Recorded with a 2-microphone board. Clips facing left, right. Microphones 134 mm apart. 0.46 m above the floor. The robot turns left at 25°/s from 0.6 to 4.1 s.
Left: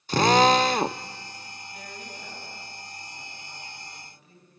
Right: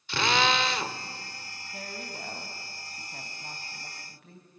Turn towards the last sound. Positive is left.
turn(degrees=-105)